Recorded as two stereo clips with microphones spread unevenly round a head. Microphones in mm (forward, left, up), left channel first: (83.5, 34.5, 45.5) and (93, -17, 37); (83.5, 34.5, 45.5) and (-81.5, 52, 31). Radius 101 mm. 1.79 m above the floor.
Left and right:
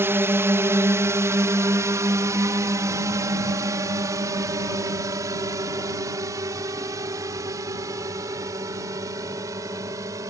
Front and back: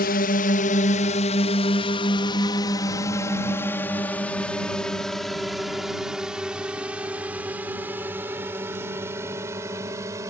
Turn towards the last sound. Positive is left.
turn(degrees=-110)